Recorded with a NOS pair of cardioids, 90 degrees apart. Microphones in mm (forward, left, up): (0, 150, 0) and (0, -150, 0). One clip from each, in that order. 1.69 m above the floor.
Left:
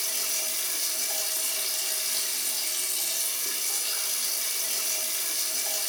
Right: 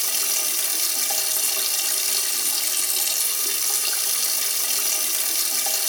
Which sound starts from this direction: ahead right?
Running water, at 0.0 s.